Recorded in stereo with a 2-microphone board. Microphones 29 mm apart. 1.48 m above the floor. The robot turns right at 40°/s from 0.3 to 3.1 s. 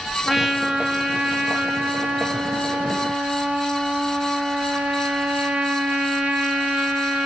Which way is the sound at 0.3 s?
165° right.